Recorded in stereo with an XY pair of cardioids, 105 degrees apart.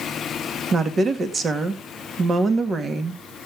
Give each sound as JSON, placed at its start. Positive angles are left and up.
{"t": 0.7, "sound": "a woman speaking", "azimuth_deg": -40, "distance_m": 2.0}